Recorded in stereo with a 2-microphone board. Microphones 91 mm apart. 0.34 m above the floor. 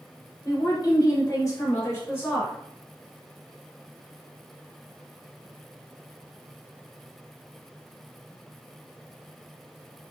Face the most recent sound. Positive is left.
turn(degrees=20)  # may be behind; listen again after turning